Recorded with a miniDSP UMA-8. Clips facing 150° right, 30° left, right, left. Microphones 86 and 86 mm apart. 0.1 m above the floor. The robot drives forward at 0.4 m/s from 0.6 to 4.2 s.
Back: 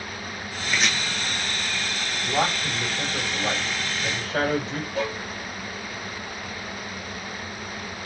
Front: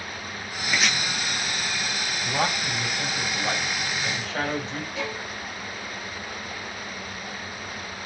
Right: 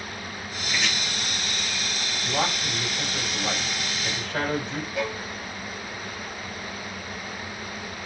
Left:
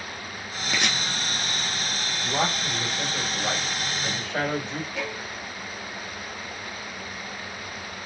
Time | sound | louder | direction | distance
0.7 | chopping | even, left 2 dB | 115° left | 0.9 m
2.2 | a man speaking | back 2 dB, even | 160° left | 3 m
5.0 | a violin | back 6 dB, right 3 dB | 175° right | 1.4 m